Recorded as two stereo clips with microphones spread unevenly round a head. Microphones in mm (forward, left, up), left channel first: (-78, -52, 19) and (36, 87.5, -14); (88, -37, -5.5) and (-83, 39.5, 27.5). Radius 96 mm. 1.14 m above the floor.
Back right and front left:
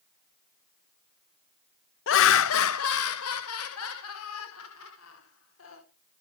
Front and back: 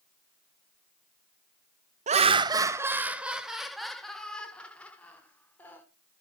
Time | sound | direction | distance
2.1 | laughter | 150° right | 0.7 m